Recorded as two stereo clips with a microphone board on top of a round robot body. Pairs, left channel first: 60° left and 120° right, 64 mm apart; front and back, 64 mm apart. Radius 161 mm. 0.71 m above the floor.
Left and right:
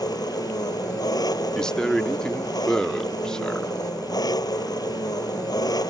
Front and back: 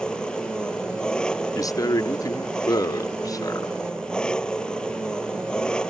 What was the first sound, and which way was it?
An engine running, 80° left.